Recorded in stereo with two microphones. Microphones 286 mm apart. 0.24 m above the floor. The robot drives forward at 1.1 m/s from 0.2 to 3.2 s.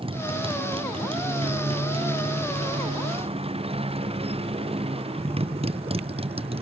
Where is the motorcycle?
20° right (ahead or behind).